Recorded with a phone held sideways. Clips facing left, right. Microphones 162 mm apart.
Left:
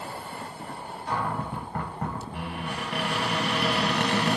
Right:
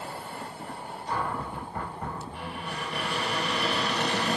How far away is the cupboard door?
About 0.7 m.